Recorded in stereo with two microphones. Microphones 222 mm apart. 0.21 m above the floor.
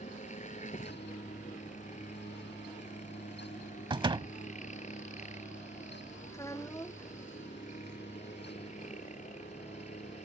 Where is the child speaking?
15° left (ahead or behind).